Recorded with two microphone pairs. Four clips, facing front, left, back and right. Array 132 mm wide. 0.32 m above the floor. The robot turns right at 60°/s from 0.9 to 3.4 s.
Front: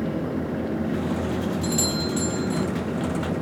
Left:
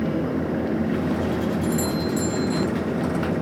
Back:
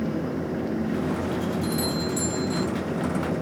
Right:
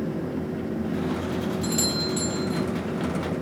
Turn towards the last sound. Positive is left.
turn(degrees=50)